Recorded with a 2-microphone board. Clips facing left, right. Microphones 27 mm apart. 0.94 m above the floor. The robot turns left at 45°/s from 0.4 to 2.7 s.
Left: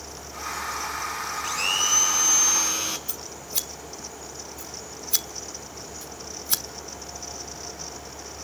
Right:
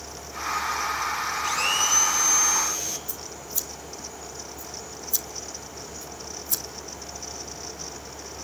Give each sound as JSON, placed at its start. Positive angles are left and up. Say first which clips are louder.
{"t": 1.4, "sound": "a blender", "louder": "even", "azimuth_deg": -175, "distance_m": 3.0}
{"t": 3.1, "sound": "scissors", "louder": "left 1 dB", "side_deg": 70, "distance_m": 1.1}